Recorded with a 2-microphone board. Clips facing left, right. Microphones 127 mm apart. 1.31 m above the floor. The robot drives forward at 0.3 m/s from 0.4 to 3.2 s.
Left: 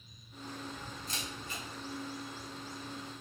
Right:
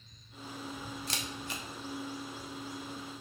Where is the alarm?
I don't hear an alarm.